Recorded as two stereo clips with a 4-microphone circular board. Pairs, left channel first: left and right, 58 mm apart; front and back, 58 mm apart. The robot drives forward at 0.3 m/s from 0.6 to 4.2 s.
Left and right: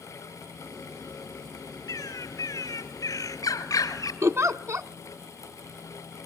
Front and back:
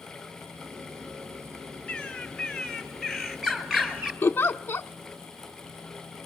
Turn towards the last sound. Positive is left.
turn(degrees=-45)